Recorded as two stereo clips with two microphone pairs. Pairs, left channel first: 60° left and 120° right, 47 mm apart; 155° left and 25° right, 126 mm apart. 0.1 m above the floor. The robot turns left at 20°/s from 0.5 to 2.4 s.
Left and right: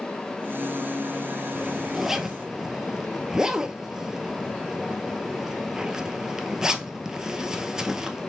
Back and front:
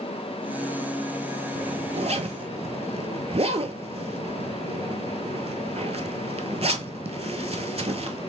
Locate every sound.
1.6 s a zipper: 25° right, 0.5 m; by 8.3 s 45° right, 0.5 m